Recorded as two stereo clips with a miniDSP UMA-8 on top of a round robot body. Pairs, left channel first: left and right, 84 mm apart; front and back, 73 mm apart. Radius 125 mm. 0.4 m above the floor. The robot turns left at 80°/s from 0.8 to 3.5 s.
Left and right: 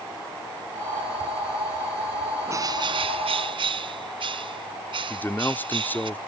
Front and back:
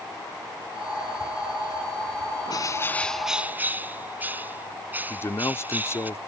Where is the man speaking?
30° left.